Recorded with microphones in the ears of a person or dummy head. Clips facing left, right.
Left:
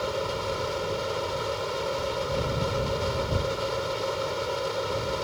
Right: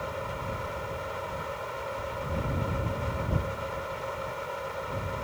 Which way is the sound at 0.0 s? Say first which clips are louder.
Left 6 dB; 55° left (ahead or behind).